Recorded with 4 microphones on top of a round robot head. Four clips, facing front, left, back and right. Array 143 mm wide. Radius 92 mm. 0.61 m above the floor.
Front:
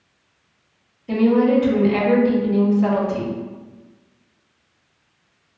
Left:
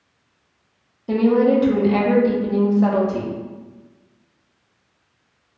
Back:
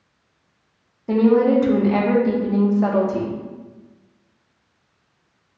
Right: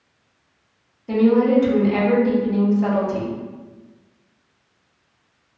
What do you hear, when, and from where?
1.1 s a woman speaking: 150° left, 0.9 m